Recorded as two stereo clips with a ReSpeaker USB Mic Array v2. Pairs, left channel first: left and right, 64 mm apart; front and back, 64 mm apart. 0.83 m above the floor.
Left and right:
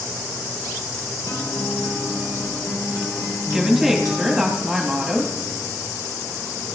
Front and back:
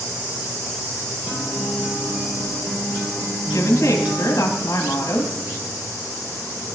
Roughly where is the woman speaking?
Ahead.